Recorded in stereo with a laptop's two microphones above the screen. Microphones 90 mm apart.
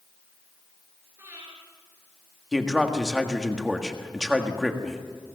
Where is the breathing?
25° right (ahead or behind), 9 m.